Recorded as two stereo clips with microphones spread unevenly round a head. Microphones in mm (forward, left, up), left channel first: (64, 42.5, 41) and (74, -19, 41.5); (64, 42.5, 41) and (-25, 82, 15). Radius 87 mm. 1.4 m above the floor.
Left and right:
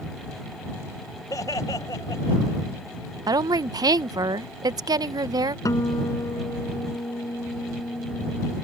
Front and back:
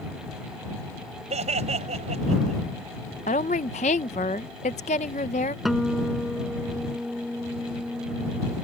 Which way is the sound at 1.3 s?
160° left.